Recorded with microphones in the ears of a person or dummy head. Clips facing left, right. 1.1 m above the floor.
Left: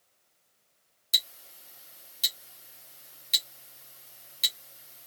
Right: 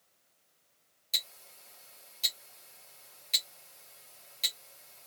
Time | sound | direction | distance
1.1 | ticking | 15° left (ahead or behind) | 0.9 m